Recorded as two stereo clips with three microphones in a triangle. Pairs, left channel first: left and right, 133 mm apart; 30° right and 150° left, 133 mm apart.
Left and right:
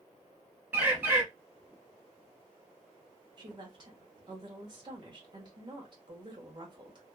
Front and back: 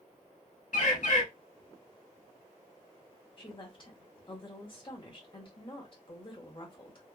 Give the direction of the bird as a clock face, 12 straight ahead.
12 o'clock.